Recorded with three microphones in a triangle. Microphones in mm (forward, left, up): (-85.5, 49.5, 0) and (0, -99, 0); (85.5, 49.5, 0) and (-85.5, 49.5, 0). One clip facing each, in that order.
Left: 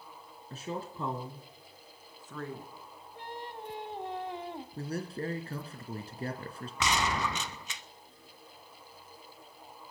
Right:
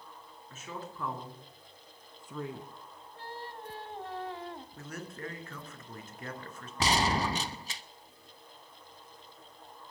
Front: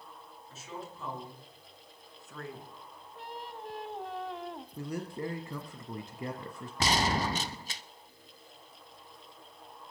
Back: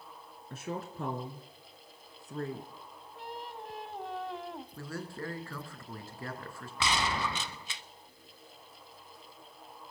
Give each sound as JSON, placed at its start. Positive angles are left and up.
{"t": 0.5, "sound": "a woman speaking", "azimuth_deg": 170, "distance_m": 2.5}
{"t": 3.1, "sound": "singing", "azimuth_deg": 90, "distance_m": 1.2}
{"t": 4.8, "sound": "a man speaking", "azimuth_deg": 70, "distance_m": 2.5}
{"t": 6.8, "sound": "a gunshot", "azimuth_deg": -25, "distance_m": 0.8}